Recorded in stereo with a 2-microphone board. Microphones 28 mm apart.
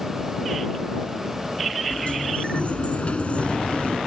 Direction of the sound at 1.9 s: 50° left (ahead or behind).